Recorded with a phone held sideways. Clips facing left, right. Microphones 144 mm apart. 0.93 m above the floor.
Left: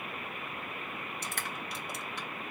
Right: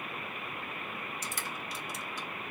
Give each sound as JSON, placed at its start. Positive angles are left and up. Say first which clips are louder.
{"t": 1.2, "sound": "crushing", "louder": "left 1 dB", "side_deg": 60, "distance_m": 0.7}